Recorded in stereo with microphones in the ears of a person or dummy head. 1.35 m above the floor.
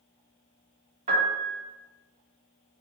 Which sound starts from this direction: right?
A piano, at 1.1 s.